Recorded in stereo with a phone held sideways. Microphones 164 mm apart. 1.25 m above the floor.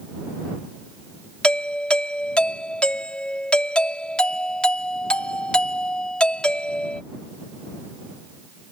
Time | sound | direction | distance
1.4 | a doorbell | 5° left (ahead or behind) | ?